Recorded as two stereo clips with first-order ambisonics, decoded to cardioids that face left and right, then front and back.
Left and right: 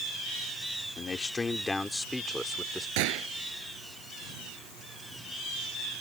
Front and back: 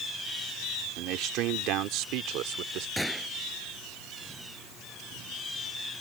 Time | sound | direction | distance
1.0 | a man speaking | 155° left | ?
3.0 | a gunshot | 90° right | ?